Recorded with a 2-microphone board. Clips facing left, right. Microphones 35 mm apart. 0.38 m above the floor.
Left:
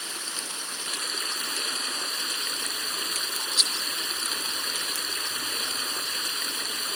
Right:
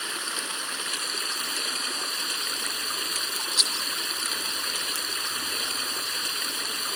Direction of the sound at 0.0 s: 30° right (ahead or behind).